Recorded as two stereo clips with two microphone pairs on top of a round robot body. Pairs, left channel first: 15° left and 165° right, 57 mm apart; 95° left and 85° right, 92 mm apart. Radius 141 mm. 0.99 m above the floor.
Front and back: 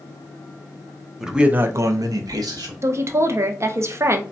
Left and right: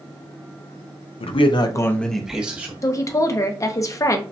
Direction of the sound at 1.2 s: 105° left.